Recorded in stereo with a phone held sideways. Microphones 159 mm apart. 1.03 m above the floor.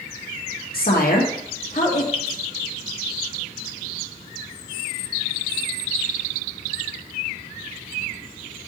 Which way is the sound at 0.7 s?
70° left (ahead or behind).